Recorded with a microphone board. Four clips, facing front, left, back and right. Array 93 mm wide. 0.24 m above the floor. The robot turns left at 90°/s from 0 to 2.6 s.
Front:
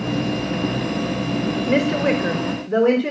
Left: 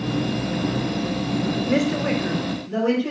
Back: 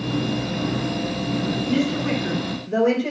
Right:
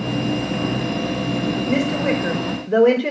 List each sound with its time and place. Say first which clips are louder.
1.7 s a woman speaking: right 1 dB, front 5 dB; 30° left, 3.5 m; by 3.1 s 50° right, 3.5 m